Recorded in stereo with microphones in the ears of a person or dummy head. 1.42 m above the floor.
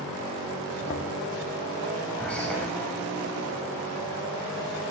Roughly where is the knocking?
Left.